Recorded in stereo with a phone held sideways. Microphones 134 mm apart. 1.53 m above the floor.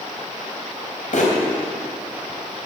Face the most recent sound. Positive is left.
turn(degrees=70)  # may be behind; listen again after turning